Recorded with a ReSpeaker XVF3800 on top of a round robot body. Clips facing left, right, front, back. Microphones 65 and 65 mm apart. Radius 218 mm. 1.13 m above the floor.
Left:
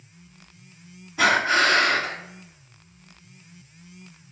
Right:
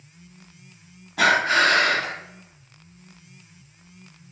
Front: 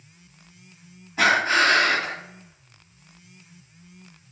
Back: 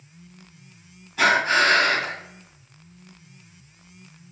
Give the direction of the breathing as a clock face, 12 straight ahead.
2 o'clock.